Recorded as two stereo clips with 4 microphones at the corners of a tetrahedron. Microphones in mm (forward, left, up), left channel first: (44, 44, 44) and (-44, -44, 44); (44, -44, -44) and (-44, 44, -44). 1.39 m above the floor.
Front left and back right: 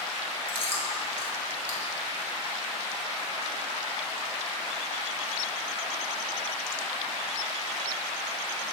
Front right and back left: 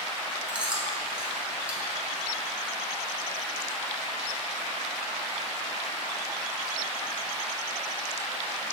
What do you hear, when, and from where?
0.5 s chewing: 55° left, 1.4 m